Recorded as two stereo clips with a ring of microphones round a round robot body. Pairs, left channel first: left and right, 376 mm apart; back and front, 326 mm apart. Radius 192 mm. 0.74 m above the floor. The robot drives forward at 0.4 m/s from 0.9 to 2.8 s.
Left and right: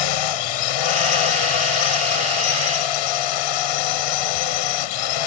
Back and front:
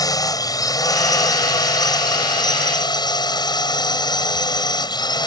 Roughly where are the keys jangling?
No keys jangling in this recording.